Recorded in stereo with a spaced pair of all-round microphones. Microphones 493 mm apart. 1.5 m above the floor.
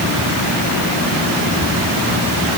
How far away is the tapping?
No tapping in this recording.